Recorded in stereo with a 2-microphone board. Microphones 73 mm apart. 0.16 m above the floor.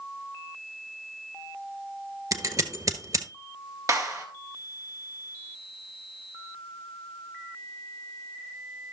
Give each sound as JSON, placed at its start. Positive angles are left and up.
{"t": 2.3, "sound": "scissors", "side_deg": -55, "distance_m": 1.0}
{"t": 3.9, "sound": "a clap", "side_deg": -45, "distance_m": 2.5}